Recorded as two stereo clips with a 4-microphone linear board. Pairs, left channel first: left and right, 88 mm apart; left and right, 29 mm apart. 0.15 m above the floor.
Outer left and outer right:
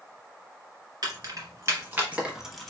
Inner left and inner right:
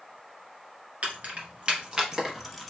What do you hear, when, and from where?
1.0 s keys jangling: 45° right (ahead or behind), 1.7 m; by 2.7 s 5° left (ahead or behind), 1.0 m